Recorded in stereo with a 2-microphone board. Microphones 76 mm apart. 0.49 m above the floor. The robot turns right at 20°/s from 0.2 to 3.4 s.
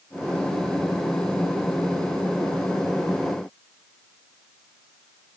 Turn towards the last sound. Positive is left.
No sound to turn to.